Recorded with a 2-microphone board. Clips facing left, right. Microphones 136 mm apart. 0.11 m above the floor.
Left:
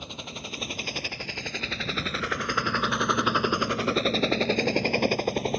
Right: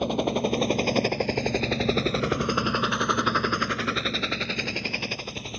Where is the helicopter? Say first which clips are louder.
Right 16 dB; 65° right (ahead or behind); by 5.6 s 60° left (ahead or behind).